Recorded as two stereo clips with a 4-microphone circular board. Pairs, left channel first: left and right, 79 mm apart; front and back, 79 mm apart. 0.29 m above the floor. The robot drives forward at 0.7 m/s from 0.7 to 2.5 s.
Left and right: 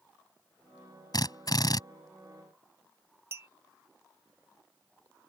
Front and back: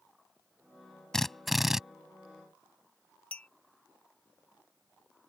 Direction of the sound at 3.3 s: 65° right.